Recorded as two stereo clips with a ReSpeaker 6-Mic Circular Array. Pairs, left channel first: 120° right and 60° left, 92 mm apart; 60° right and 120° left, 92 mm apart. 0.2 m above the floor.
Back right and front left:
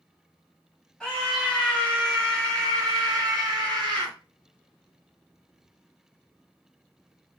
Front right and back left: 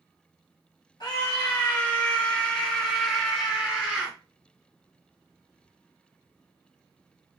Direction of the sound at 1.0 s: 30° right.